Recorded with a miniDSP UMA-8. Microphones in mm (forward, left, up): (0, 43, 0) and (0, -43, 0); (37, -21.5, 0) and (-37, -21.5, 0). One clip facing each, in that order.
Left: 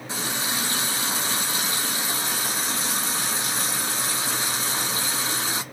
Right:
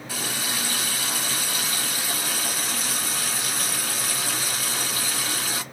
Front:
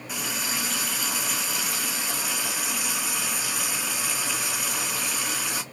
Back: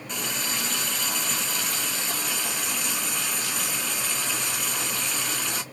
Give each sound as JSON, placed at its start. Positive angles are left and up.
{"t": 0.1, "sound": "a running tap", "azimuth_deg": 75, "distance_m": 0.8}